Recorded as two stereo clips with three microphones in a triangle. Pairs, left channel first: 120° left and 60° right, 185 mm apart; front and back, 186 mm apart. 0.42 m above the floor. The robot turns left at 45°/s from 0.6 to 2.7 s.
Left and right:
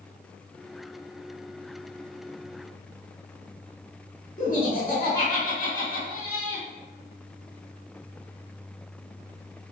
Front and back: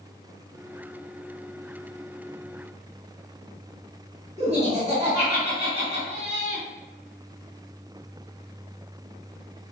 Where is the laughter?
135° left, 1.8 m.